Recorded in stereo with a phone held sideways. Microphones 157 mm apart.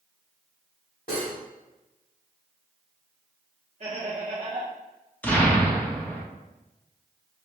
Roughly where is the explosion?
Centre.